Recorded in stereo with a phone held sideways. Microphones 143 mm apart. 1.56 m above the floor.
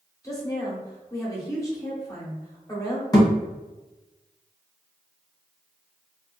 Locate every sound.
0.2 s a woman speaking: 20° left (ahead or behind), 1.1 m
3.1 s a thud: 25° left (ahead or behind), 0.9 m